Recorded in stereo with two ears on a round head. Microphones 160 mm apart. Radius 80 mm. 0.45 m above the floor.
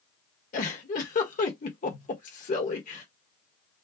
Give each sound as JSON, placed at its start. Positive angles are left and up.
{"t": 0.5, "sound": "a giggle", "side_deg": 45, "distance_m": 1.5}